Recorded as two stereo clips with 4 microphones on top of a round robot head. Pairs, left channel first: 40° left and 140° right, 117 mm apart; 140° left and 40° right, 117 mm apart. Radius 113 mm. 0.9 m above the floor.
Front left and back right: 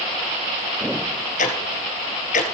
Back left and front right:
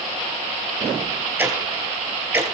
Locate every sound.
1.4 s ticking: 35° left, 3 m